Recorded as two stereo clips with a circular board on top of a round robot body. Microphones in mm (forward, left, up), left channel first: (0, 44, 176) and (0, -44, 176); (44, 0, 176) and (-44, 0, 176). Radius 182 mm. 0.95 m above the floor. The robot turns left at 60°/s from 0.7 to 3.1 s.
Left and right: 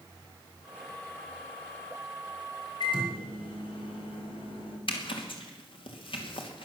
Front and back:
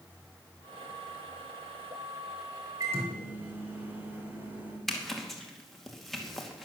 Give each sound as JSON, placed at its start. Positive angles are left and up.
{"t": 2.8, "sound": "a microwave", "azimuth_deg": 125, "distance_m": 3.0}
{"t": 4.9, "sound": "a zipper", "azimuth_deg": 85, "distance_m": 2.5}